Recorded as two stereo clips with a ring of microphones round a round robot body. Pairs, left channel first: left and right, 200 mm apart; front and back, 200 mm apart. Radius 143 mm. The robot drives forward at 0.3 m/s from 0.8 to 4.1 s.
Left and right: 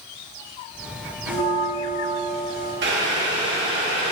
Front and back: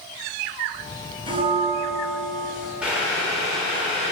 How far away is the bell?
About 1.2 m.